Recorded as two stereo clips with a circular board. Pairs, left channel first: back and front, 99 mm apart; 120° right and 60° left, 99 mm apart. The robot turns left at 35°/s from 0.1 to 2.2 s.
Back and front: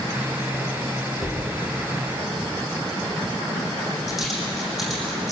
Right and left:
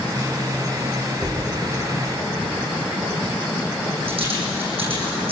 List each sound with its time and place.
1.2 s a dropped coin: 125° left, 10 m; by 5.3 s 90° left, 10 m